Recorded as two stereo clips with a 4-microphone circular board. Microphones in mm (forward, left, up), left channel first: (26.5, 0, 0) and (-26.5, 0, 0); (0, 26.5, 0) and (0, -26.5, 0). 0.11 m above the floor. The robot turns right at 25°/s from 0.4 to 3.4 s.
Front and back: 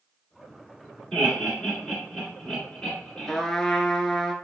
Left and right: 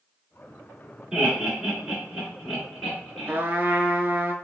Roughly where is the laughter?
Ahead right.